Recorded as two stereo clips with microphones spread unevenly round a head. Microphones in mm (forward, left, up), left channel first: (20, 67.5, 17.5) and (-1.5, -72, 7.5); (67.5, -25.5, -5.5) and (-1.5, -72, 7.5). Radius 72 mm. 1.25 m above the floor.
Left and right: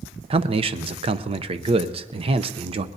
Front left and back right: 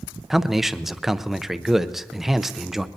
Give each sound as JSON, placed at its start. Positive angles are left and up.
{"t": 0.3, "sound": "a man speaking", "azimuth_deg": -55, "distance_m": 0.7}